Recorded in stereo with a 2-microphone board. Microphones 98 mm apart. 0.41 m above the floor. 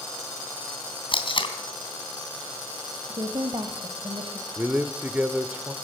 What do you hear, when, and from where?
1.1 s tape being pulled: 60° left (ahead or behind), 3 m
3.0 s a woman speaking: 55° right (ahead or behind), 1.7 m
4.6 s a man speaking: 20° right (ahead or behind), 0.9 m